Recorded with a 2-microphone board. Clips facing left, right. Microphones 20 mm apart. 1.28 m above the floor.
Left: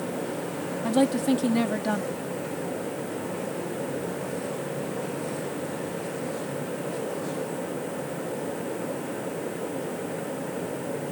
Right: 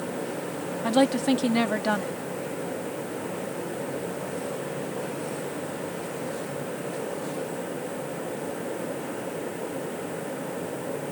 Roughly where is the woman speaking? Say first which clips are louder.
Right 1 dB; right.